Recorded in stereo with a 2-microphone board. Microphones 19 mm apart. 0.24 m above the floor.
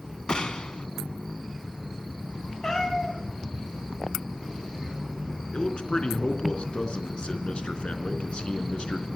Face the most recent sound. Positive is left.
turn(degrees=60)  # may be behind; listen again after turning